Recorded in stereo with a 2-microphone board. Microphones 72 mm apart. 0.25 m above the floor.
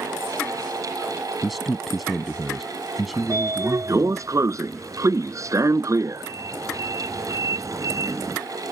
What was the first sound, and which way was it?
A man speaking, centre (ahead or behind).